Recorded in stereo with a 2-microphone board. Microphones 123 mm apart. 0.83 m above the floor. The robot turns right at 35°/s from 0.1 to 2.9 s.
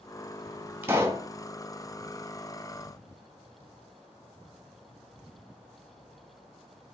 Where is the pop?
15° right (ahead or behind), 1.1 m; by 1.3 s 30° right (ahead or behind), 1.1 m.